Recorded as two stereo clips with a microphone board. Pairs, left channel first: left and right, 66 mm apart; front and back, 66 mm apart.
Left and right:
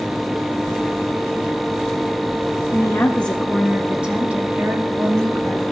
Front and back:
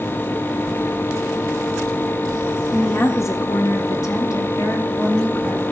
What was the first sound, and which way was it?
A woman speaking, 45° left.